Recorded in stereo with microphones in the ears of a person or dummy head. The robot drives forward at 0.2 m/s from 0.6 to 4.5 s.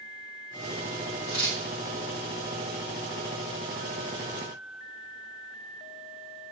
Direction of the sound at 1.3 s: 65° left (ahead or behind).